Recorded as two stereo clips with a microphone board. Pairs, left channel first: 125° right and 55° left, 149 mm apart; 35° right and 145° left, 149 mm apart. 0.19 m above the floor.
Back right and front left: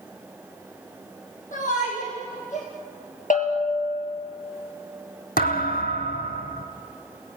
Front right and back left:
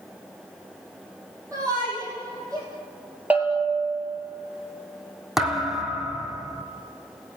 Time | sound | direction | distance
1.5 | a shout | 150° right | 6 m
3.3 | a bell | 135° right | 4 m
5.4 | a thud | 125° right | 2.5 m